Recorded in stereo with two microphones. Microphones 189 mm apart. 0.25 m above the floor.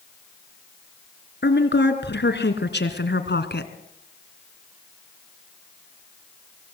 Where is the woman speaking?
65° left (ahead or behind), 3 m.